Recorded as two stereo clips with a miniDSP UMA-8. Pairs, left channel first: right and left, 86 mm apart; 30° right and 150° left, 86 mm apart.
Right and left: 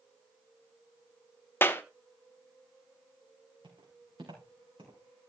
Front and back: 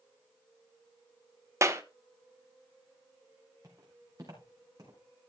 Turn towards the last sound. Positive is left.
turn(degrees=110)